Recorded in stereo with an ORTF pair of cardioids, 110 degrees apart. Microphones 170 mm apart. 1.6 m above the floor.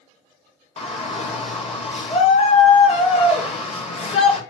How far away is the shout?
About 1.2 m.